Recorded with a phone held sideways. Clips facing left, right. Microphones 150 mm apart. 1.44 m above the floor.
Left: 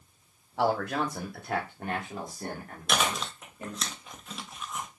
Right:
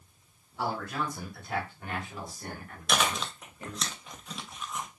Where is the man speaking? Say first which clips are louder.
Left 6 dB; 85° left, 1.2 m; by 3.9 s 30° left (ahead or behind), 2.5 m.